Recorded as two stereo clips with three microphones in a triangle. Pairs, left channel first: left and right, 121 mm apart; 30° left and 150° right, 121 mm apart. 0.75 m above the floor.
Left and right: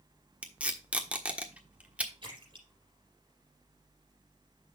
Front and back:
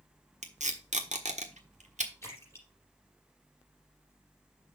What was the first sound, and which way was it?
Tape being pulled, 170° right.